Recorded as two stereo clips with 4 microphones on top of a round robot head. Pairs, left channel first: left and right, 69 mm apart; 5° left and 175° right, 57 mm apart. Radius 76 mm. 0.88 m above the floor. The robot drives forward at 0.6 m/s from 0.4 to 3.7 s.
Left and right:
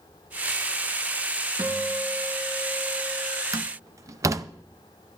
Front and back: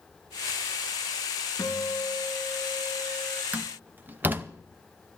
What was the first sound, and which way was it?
A guitar, 60° right.